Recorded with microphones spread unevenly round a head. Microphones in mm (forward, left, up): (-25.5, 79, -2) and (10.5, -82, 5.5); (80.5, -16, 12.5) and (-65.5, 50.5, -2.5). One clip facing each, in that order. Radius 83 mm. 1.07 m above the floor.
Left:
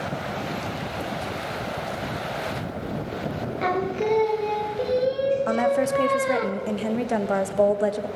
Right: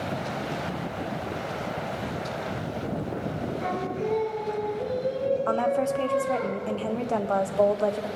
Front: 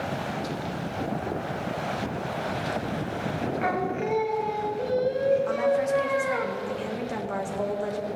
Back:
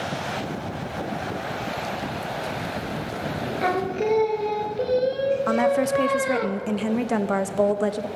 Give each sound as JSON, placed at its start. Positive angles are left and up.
{"t": 3.6, "sound": "singing", "azimuth_deg": 110, "distance_m": 0.9}
{"t": 5.5, "sound": "a woman speaking", "azimuth_deg": 175, "distance_m": 0.7}